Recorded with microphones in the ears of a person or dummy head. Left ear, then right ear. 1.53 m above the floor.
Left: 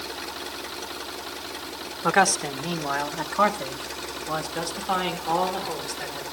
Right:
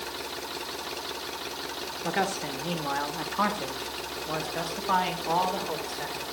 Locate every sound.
2.0 s a man speaking: 45° left (ahead or behind), 1.6 m; by 6.2 s 15° right (ahead or behind), 4 m